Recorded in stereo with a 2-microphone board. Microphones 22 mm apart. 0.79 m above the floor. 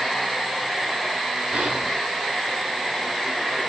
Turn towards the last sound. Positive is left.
turn(degrees=-65)  # may be behind; listen again after turning